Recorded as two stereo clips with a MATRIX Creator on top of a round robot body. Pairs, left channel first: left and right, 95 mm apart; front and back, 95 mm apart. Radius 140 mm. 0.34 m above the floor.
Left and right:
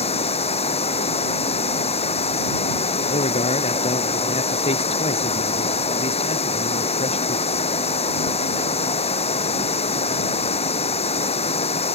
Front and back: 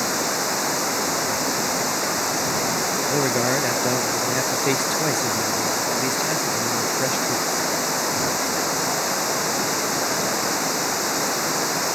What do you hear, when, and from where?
0.0 s running water: 90° left
3.1 s a man speaking: 90° left